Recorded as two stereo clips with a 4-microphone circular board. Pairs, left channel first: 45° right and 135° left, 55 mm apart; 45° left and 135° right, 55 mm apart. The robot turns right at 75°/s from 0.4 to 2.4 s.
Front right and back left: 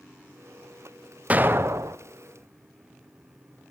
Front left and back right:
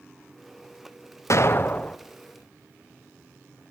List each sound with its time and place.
1.3 s an explosion: 70° left, 0.9 m; by 2.0 s 125° left, 0.9 m